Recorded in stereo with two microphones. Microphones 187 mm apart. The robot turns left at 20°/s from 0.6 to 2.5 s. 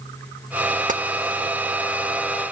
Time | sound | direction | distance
0.9 | tapping | 45° right (ahead or behind) | 1.3 m